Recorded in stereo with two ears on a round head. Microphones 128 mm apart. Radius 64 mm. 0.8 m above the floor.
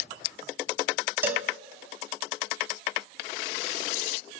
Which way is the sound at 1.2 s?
15° right (ahead or behind).